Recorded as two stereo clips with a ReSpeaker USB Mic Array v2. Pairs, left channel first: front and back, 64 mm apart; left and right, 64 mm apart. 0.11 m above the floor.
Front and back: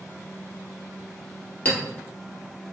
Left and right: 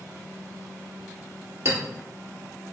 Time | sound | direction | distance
1.6 | a clink | 55° right | 1.5 m